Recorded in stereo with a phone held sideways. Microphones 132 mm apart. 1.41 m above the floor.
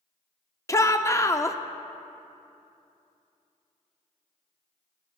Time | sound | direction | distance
0.7 | a shout | 25° left (ahead or behind) | 0.7 m